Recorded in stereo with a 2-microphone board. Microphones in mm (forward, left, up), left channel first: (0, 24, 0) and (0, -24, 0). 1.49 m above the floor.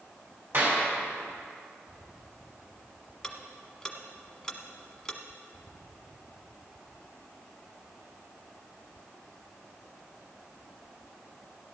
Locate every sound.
0.5 s a clap: 55° right (ahead or behind), 4.5 m
3.2 s ticking: 10° left (ahead or behind), 1.2 m